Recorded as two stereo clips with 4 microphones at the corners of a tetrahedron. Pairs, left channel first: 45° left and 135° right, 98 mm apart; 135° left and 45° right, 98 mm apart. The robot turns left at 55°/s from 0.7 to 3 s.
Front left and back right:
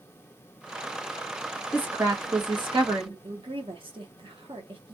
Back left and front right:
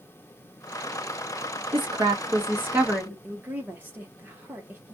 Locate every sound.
1.7 s a woman speaking: 60° right, 1.3 m; by 3.1 s 130° right, 1.3 m
3.2 s a woman speaking: 115° right, 1.1 m